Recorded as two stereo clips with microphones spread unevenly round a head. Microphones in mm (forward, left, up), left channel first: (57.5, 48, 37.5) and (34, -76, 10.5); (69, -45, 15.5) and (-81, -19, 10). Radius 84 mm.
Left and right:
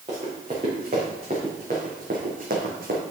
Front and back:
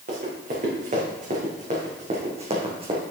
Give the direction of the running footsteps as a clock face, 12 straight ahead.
5 o'clock.